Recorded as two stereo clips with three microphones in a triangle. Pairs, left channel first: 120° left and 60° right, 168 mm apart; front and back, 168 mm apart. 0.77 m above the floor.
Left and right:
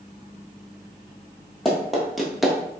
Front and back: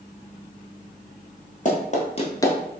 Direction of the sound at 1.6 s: 30° left.